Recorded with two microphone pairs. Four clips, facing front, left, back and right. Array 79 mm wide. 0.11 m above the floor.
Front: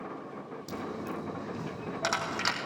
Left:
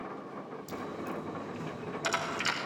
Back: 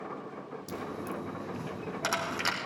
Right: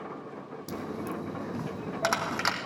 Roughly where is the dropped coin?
Right.